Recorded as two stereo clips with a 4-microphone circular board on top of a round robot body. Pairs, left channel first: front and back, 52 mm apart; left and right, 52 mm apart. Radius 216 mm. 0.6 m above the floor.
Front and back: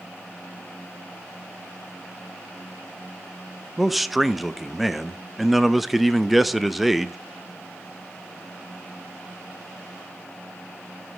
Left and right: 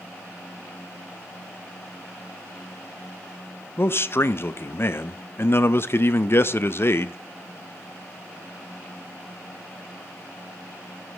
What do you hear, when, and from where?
3.8 s a man speaking: 90° left, 0.7 m